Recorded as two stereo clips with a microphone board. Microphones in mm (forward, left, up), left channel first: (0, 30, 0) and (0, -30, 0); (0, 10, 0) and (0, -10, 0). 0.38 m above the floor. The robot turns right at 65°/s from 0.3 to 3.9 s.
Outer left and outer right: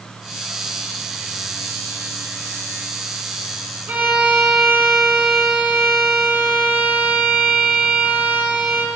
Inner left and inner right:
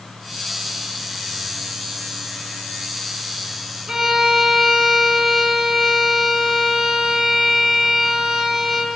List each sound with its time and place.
3.9 s a violin: 35° right (ahead or behind), 3.5 m; by 8.9 s 30° right (ahead or behind), 3.5 m